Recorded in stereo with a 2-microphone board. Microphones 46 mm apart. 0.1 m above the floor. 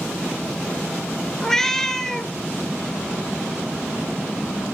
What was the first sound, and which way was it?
A cat meowing, 10° left (ahead or behind).